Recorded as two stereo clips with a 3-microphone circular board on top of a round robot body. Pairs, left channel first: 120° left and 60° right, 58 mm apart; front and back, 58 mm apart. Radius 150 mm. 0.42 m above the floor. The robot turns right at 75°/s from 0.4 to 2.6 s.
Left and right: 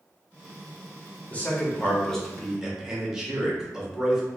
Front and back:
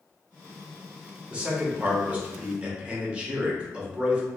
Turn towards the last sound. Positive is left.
turn(degrees=-130)